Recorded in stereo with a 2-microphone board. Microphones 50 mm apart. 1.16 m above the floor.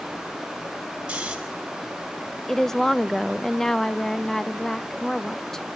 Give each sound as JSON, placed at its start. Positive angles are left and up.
{"t": 1.1, "sound": "snoring", "side_deg": -15, "distance_m": 5.5}
{"t": 2.5, "sound": "a woman speaking", "side_deg": 10, "distance_m": 0.6}